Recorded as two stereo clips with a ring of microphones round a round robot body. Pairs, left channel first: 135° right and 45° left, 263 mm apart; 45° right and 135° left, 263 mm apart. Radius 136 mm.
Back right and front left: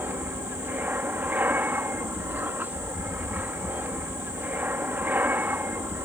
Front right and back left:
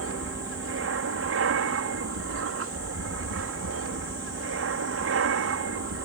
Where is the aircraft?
125° left.